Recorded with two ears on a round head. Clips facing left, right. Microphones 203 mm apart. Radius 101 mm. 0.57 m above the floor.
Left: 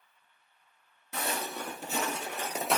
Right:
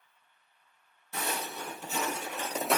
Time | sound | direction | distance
1.1 | footsteps | 50° left (ahead or behind) | 1.3 m